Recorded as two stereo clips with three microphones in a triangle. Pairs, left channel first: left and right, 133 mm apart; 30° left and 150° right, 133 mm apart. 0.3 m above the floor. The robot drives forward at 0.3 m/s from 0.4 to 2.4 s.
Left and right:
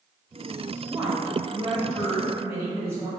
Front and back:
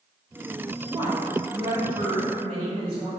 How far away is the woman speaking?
About 1.1 m.